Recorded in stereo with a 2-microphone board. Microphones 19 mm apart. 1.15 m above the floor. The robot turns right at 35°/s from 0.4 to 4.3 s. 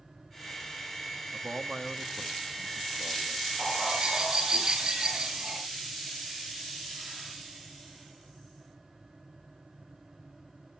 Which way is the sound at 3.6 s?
75° right (ahead or behind).